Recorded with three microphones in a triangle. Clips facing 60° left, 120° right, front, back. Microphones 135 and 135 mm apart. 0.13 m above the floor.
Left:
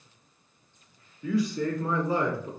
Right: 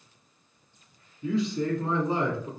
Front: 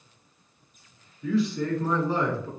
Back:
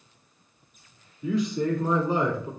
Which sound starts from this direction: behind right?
A man speaking, at 1.2 s.